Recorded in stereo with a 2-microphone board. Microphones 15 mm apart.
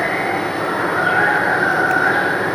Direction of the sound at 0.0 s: 25° left (ahead or behind).